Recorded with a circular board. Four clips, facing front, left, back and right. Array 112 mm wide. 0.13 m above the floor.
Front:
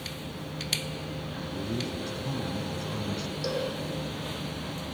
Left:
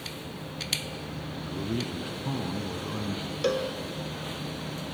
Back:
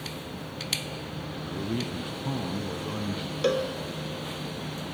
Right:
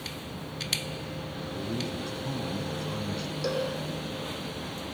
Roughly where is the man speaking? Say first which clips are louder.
Left 2 dB, back 2 dB; behind left.